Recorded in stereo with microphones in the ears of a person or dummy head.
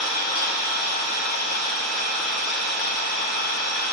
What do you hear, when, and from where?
0.0 s an engine running: 55° left (ahead or behind), 1.8 m